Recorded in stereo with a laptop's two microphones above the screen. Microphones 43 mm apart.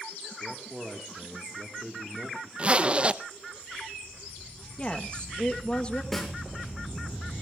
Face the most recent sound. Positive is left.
turn(degrees=5)  # may be behind; listen again after turning